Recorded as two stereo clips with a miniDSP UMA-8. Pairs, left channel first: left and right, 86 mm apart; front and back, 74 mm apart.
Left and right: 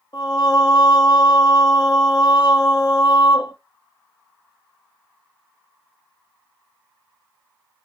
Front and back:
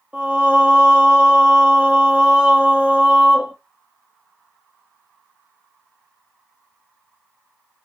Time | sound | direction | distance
0.1 | singing | 110° left | 1.1 m